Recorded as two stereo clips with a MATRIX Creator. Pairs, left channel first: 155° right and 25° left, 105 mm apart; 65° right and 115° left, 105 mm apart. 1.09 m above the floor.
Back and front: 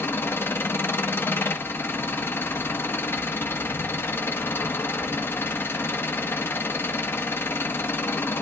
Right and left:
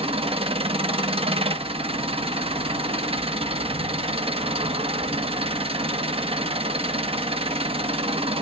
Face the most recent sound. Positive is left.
turn(degrees=135)